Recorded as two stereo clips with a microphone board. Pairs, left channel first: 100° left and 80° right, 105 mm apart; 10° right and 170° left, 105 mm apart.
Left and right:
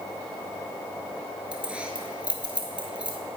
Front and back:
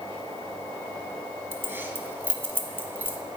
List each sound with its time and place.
1.5 s keys jangling: 145° right, 0.8 m